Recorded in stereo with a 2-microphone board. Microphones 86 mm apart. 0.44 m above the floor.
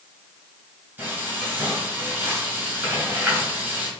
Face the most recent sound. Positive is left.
turn(degrees=-20)  # may be behind; listen again after turning